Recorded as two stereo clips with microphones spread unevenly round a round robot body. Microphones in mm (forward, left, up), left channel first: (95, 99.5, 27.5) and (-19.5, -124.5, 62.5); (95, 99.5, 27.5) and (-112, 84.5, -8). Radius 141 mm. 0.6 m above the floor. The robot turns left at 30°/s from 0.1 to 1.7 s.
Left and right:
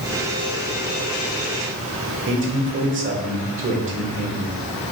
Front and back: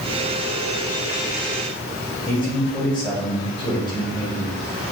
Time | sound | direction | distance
2.3 | a man speaking | 75° right | 2 m